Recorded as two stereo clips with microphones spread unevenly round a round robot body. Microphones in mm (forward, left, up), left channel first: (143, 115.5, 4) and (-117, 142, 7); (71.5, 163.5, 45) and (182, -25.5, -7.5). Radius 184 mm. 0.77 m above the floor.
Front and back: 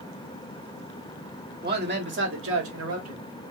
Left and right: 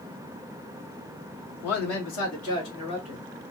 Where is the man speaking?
120° left, 1.9 m; by 3.2 s 165° left, 1.8 m.